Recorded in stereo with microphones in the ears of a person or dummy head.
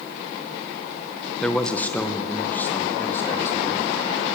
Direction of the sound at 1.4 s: 5° left (ahead or behind).